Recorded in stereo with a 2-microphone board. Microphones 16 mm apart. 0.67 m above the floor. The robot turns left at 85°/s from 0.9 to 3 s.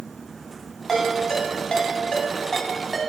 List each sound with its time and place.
0.9 s a ringtone: 5° left (ahead or behind), 2.5 m; by 3.0 s 5° right (ahead or behind), 2.5 m